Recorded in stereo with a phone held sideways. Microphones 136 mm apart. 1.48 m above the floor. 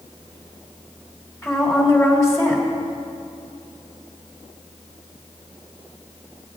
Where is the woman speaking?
25° left (ahead or behind), 3 m.